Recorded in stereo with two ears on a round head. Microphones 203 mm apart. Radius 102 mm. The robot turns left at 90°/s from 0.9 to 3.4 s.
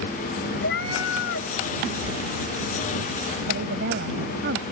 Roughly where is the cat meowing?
Left.